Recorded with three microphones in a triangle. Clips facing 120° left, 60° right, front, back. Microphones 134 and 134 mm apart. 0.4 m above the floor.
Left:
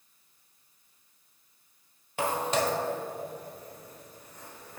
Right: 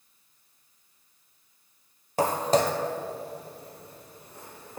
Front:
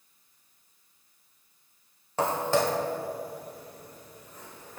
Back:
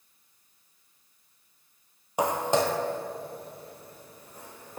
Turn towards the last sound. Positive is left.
turn(degrees=-120)